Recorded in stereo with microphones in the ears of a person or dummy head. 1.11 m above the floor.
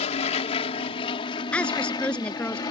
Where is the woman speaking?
15° left (ahead or behind).